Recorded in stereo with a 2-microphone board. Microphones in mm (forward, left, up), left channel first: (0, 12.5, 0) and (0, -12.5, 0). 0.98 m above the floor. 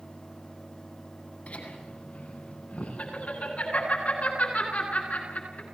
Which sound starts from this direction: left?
Laughter, at 1.5 s.